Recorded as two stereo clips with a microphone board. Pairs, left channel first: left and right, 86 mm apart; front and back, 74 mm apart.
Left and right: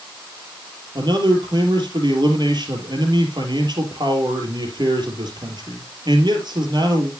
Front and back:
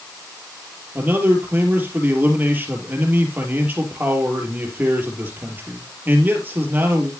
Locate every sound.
0.9 s a man speaking: 120° right, 3 m